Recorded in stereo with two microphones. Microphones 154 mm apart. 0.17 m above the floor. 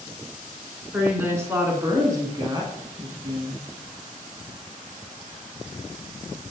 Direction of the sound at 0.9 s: 15° right (ahead or behind).